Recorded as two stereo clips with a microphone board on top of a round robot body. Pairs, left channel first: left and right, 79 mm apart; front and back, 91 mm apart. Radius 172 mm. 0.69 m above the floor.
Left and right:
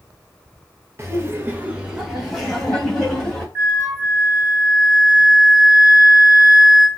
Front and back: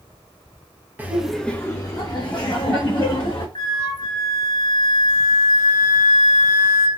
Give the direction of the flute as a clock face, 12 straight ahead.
1 o'clock.